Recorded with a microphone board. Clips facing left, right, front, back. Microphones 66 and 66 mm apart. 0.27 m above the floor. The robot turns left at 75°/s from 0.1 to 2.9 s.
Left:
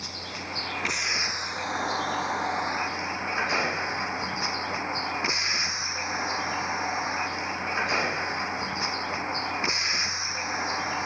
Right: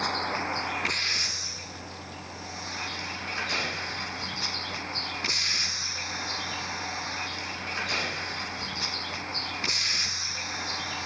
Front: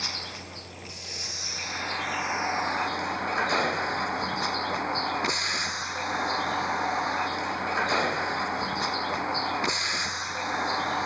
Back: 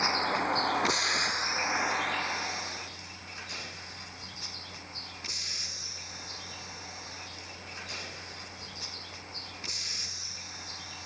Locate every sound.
0.0 s a vehicle: 125° right; by 11.1 s 25° left